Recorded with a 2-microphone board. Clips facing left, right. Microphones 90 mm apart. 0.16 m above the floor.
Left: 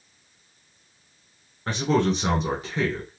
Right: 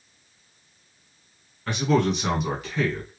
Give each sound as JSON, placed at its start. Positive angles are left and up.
{"t": 1.7, "sound": "a man speaking", "side_deg": 35, "distance_m": 1.5}